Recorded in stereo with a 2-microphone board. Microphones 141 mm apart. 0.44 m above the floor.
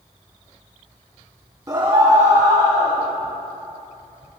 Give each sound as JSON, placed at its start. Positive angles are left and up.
{"t": 1.7, "sound": "a scream", "side_deg": -25, "distance_m": 0.8}